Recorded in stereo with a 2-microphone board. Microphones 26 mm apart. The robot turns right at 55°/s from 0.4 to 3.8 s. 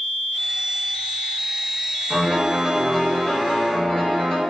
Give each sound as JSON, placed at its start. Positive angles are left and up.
{"t": 2.1, "sound": "a piano", "azimuth_deg": -40, "distance_m": 1.1}